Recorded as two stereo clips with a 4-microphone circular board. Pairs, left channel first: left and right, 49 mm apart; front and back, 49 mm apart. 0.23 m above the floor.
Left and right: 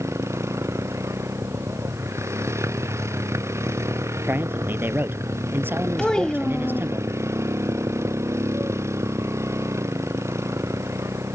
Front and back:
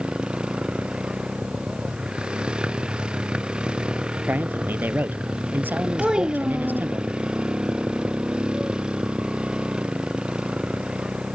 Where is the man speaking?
135° right.